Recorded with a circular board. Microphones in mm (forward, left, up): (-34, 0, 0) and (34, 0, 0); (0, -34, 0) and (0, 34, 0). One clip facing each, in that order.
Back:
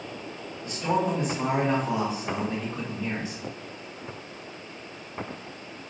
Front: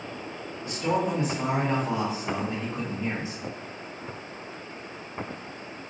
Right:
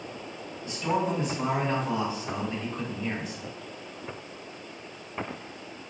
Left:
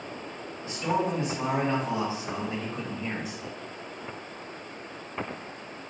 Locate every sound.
0.6 s a man speaking: 130° left, 1.7 m; by 3.4 s 5° left, 1.2 m